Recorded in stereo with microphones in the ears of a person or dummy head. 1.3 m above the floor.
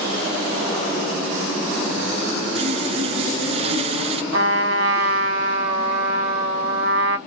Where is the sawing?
35° right (ahead or behind), 0.7 m.